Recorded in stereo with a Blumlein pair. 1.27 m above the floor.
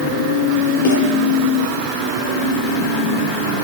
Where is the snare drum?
50° left, 7.5 m.